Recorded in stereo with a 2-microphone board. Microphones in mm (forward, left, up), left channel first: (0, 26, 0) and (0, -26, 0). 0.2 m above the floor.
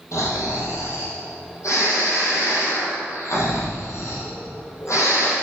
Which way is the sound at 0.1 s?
70° left (ahead or behind).